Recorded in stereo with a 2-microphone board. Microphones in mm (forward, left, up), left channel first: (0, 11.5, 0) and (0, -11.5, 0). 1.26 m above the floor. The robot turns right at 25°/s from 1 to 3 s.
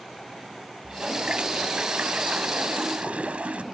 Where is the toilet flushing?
140° right; by 3.6 s 90° right.